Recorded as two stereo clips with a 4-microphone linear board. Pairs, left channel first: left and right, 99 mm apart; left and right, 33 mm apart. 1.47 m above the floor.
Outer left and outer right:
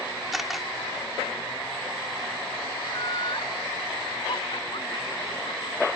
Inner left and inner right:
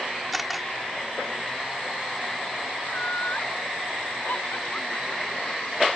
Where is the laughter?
55° left (ahead or behind).